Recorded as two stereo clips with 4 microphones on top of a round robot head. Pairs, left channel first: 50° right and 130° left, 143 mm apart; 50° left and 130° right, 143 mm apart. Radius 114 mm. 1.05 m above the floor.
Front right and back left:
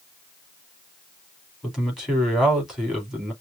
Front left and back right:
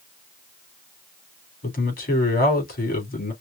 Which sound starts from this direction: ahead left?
A man speaking, at 1.6 s.